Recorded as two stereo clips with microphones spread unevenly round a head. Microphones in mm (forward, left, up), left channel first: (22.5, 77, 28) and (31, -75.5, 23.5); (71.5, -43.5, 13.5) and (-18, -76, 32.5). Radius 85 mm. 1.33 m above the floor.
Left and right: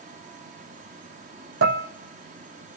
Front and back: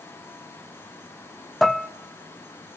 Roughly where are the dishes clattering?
Right.